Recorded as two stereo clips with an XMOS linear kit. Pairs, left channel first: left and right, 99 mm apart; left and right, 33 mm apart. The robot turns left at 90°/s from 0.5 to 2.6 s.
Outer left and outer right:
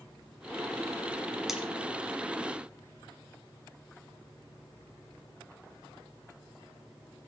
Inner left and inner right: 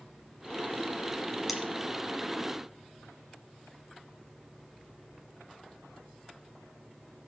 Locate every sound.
1.5 s cutlery clinking: 5° right (ahead or behind), 1.8 m; by 1.6 s 15° right (ahead or behind), 1.8 m